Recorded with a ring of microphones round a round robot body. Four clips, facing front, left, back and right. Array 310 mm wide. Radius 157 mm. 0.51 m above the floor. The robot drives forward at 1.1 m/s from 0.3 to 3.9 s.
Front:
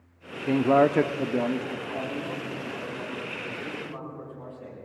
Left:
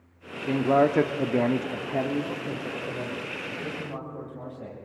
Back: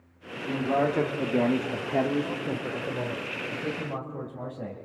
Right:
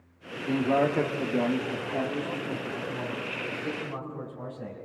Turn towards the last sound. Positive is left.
turn(degrees=175)